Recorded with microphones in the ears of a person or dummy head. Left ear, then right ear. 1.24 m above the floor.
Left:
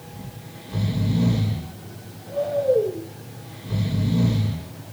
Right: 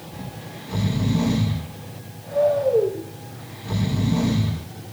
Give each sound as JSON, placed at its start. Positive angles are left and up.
{"t": 0.1, "sound": "snoring", "side_deg": -50, "distance_m": 8.5}